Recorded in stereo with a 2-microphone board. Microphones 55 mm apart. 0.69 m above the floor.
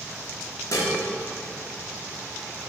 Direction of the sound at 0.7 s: 65° left (ahead or behind).